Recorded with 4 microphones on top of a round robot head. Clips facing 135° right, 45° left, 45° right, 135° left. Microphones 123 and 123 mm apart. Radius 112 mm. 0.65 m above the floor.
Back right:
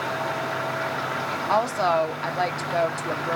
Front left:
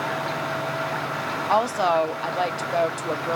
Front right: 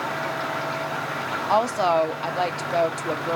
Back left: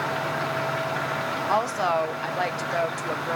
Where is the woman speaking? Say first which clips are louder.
Front left 1 dB, front right 4 dB; 15° right, 0.6 m.